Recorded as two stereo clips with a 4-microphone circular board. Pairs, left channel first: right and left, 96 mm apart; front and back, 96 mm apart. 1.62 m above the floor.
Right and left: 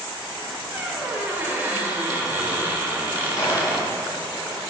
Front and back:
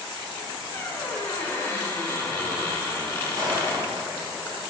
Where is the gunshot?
135° right, 1.8 m.